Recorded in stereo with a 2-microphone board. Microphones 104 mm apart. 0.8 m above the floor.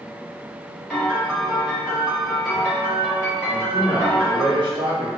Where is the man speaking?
50° right (ahead or behind), 0.9 m.